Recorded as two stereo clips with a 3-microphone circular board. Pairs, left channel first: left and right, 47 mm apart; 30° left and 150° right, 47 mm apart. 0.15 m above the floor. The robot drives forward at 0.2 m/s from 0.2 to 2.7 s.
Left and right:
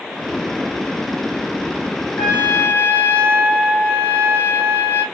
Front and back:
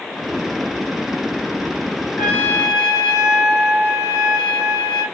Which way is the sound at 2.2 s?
100° left.